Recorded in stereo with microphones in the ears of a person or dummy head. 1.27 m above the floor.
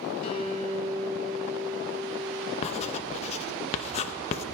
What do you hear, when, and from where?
0.2 s a guitar: 40° left (ahead or behind), 4 m
2.6 s writing: 35° left (ahead or behind), 0.8 m